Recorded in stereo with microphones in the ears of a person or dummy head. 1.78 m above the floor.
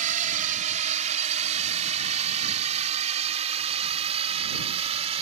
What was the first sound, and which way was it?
A drone, 40° right (ahead or behind).